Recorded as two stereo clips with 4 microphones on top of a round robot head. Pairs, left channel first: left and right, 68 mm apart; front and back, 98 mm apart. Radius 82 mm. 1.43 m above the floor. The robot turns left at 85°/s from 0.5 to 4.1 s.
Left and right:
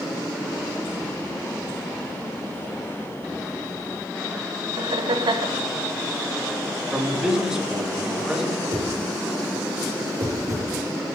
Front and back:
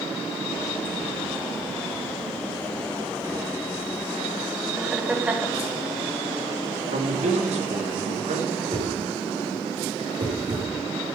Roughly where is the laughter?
Right.